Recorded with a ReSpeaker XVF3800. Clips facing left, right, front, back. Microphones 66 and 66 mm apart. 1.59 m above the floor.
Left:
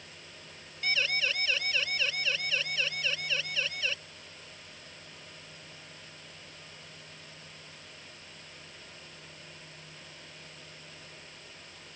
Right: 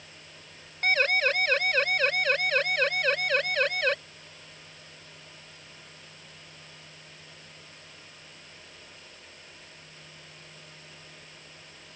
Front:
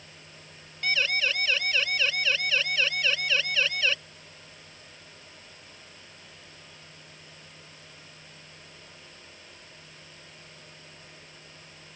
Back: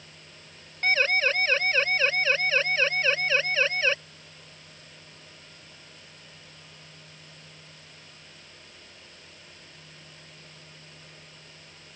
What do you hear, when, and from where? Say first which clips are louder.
0.8 s a siren: right 7 dB, back 4 dB; 130° right; by 4.0 s 120° right